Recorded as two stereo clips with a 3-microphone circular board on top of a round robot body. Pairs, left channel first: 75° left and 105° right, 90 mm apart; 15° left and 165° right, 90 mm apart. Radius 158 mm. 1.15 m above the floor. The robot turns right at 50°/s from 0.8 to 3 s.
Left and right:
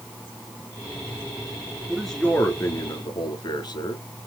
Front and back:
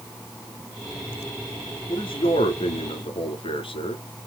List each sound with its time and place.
1.9 s a man speaking: 20° right, 3 m; by 4.0 s 35° left, 3 m